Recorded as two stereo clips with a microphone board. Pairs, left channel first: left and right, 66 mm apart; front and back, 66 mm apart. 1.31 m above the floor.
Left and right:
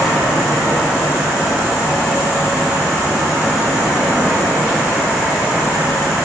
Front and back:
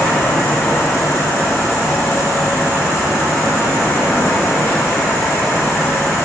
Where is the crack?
I don't hear a crack.